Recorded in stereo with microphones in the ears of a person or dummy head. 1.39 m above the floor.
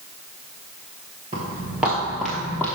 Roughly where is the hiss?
I don't hear a hiss.